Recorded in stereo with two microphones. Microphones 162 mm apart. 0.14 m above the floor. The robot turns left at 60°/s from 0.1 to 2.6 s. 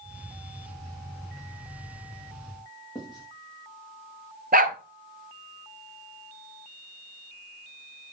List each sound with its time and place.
3.0 s writing: 25° left (ahead or behind), 5 m
4.5 s a dog barking: 65° right (ahead or behind), 1.1 m